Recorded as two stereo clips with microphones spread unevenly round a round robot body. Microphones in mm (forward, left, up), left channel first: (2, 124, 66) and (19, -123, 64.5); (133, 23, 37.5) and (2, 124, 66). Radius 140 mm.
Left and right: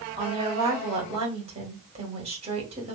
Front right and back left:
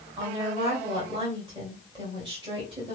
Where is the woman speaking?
150° right, 2.0 m.